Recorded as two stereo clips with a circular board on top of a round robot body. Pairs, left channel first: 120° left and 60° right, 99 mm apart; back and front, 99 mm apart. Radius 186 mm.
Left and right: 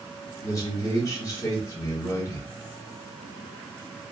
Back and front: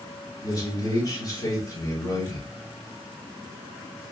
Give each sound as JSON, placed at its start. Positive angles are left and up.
{"t": 0.4, "sound": "a man speaking", "azimuth_deg": 155, "distance_m": 1.4}